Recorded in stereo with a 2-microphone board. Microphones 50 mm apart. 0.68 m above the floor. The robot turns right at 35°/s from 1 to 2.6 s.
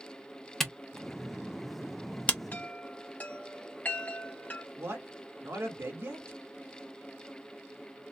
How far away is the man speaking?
About 1.8 m.